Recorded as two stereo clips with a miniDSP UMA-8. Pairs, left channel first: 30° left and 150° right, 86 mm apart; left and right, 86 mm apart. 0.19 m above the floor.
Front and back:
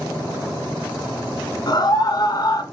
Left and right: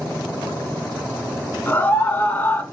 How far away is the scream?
About 2.5 m.